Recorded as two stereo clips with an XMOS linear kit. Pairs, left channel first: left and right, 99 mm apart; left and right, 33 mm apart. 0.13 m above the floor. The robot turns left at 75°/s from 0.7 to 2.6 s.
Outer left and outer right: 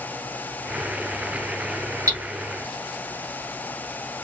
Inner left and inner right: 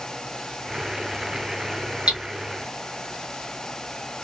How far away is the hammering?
About 1.1 m.